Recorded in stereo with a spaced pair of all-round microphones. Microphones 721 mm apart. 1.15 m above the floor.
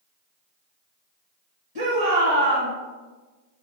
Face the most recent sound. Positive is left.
turn(degrees=-35)  # may be behind; listen again after turning